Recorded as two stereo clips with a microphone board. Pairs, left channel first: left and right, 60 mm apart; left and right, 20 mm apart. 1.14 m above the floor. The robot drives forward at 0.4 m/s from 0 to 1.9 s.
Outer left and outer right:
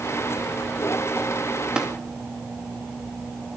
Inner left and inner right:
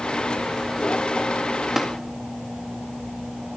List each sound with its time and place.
1.8 s tapping: 15° right (ahead or behind), 1.9 m